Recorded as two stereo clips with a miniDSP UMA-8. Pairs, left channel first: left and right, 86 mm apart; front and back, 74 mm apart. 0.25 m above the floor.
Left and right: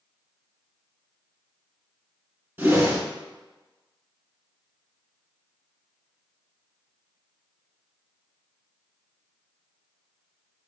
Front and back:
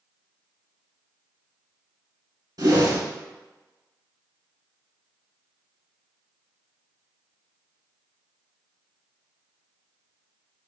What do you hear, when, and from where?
2.6 s a whoosh: 155° right, 1.2 m